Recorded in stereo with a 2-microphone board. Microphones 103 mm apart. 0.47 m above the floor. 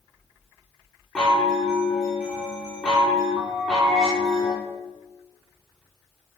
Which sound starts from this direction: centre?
A chime, at 1.1 s.